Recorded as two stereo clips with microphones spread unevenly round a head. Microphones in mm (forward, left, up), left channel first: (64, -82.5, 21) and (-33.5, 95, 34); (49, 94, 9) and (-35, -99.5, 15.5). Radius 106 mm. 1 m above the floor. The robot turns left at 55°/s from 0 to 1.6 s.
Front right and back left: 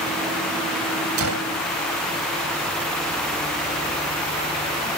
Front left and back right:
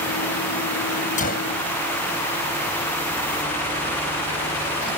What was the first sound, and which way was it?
A gunshot, 125° left.